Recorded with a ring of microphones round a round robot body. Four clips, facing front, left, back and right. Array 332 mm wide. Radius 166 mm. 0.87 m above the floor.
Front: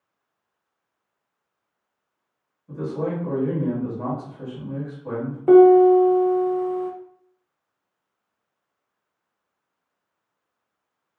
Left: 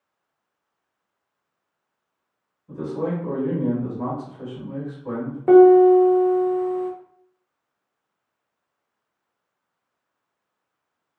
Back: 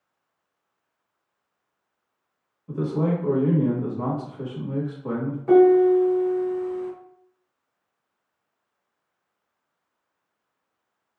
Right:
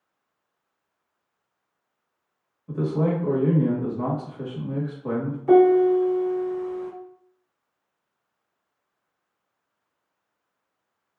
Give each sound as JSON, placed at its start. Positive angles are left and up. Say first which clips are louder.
{"t": 2.7, "sound": "a man speaking", "louder": "right 2 dB, back 2 dB", "azimuth_deg": -125, "distance_m": 1.3}
{"t": 5.5, "sound": "a piano", "louder": "left 5 dB, front 4 dB", "azimuth_deg": 50, "distance_m": 0.8}